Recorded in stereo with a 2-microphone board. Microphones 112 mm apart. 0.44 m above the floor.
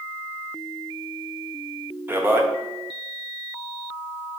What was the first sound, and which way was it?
A man speaking, 20° right (ahead or behind).